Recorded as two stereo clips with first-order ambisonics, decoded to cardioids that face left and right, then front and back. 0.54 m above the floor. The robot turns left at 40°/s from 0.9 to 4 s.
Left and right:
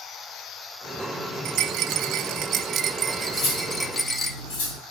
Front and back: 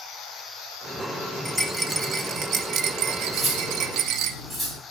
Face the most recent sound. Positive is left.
turn(degrees=85)